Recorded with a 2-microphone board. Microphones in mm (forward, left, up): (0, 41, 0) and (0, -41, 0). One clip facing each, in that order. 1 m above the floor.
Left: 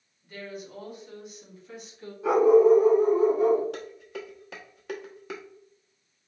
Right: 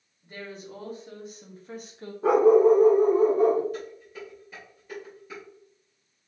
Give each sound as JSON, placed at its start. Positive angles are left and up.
{"t": 0.2, "sound": "a woman speaking", "side_deg": -30, "distance_m": 2.0}
{"t": 2.2, "sound": "a dog barking", "side_deg": -40, "distance_m": 1.0}
{"t": 3.7, "sound": "dishes clattering", "side_deg": 90, "distance_m": 0.8}